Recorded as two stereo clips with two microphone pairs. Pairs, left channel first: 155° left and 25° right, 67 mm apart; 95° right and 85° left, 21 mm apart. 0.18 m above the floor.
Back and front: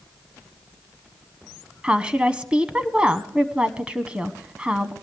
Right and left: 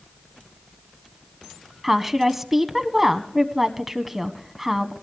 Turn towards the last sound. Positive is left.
turn(degrees=25)